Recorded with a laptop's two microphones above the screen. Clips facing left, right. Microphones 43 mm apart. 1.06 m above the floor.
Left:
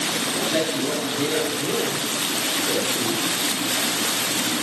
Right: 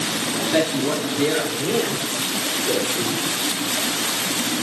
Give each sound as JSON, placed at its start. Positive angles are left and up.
{"t": 0.4, "sound": "a man speaking", "side_deg": -30, "distance_m": 2.5}